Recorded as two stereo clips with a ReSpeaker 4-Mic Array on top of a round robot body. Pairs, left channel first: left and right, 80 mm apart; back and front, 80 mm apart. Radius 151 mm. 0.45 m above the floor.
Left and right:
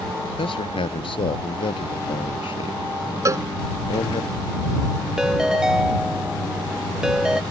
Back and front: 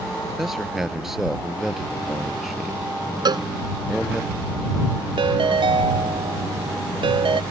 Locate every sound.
0.4 s a man speaking: 85° left
3.2 s a cowbell: 35° right
5.2 s a ringtone: 10° right